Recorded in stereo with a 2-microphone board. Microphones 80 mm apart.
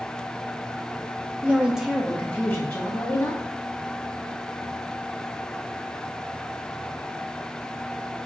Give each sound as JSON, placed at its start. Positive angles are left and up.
{"t": 1.4, "sound": "a woman speaking", "side_deg": -20, "distance_m": 0.7}